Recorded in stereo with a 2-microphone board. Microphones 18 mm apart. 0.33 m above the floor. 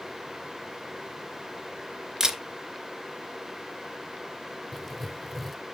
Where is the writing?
5° left (ahead or behind), 0.9 m.